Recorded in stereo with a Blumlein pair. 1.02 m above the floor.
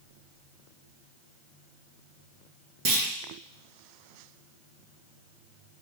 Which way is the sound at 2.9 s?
45° right.